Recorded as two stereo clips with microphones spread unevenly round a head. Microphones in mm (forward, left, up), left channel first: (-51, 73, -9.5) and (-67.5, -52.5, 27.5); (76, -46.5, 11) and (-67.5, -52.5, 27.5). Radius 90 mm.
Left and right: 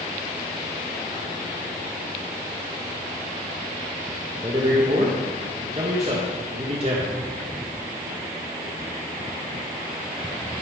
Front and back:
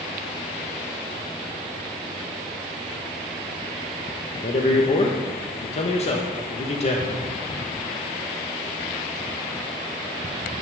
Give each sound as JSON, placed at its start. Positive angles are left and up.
{"t": 4.3, "sound": "a man speaking", "azimuth_deg": -45, "distance_m": 1.3}